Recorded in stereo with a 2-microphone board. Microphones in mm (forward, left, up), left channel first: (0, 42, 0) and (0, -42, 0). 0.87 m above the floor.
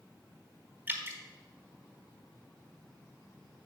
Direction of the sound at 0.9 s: 25° right (ahead or behind).